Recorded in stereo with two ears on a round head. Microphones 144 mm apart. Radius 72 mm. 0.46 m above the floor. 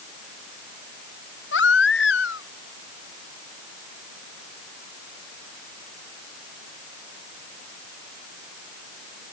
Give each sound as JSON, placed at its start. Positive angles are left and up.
{"t": 1.5, "sound": "a baby crying", "side_deg": 80}